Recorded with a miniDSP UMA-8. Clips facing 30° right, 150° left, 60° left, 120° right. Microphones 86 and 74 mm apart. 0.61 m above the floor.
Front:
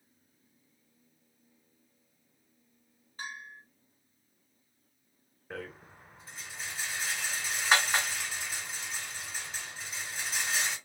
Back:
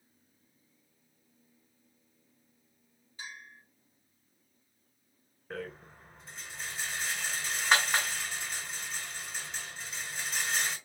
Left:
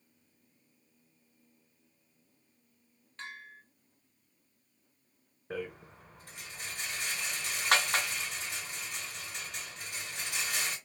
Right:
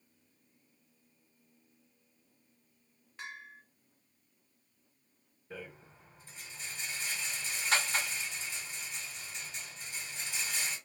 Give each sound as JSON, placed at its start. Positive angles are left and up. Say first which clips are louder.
{"t": 3.2, "sound": "a bell", "louder": "front 4 dB, even", "azimuth_deg": -45, "distance_m": 1.1}
{"t": 5.5, "sound": "a rattle", "louder": "back 2 dB, left 8 dB", "azimuth_deg": 60, "distance_m": 2.5}